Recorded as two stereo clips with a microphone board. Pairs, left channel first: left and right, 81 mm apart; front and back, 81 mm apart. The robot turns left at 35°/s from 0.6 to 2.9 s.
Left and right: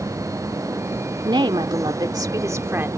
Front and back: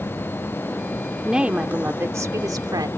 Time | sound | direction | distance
1.2 | a woman speaking | 95° right | ?